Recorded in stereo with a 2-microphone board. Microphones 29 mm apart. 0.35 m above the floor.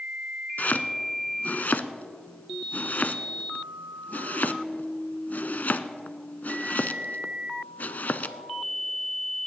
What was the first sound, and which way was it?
Chopping, 75° left (ahead or behind).